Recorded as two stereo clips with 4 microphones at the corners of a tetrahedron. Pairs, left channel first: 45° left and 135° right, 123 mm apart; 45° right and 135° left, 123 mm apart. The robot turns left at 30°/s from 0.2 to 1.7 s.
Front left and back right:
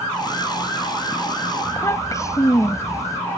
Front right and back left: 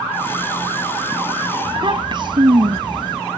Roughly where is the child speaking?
Left.